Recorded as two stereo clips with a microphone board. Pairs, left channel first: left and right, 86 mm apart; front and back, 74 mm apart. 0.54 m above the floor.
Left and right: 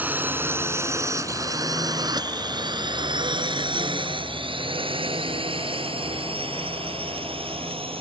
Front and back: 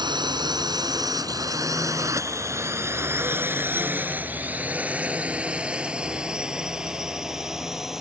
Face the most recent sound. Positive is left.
turn(degrees=-95)